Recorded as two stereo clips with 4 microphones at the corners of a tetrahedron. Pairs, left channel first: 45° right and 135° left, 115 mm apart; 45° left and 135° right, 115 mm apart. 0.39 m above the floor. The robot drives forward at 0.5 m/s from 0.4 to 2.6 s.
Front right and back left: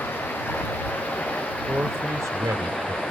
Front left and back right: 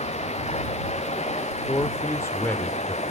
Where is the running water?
30° left, 4.5 m; by 3.1 s 40° left, 3.5 m.